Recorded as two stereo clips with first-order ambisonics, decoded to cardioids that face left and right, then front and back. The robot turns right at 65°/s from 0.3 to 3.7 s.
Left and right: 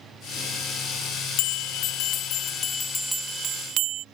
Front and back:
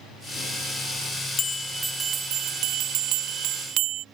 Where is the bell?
70° left; by 4.0 s 135° right.